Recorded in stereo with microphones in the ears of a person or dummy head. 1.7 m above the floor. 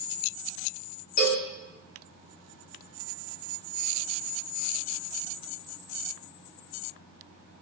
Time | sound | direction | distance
1.2 | a cowbell | 50° left (ahead or behind) | 2.5 m